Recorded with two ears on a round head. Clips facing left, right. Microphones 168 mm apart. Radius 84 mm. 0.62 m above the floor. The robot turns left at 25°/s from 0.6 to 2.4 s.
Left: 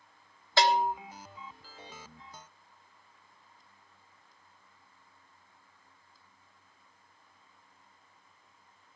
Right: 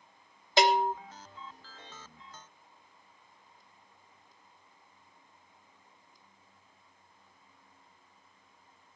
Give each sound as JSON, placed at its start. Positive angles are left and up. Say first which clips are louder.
{"t": 0.6, "sound": "a bell", "louder": "right 1 dB", "side_deg": -15, "distance_m": 1.3}